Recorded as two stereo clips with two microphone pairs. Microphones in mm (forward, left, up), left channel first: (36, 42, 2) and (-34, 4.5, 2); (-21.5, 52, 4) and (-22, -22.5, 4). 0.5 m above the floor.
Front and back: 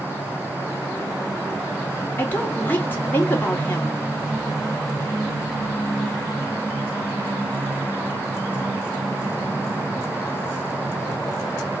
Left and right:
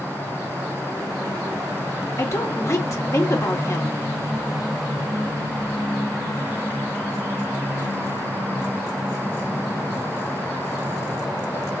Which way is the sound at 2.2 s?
80° left.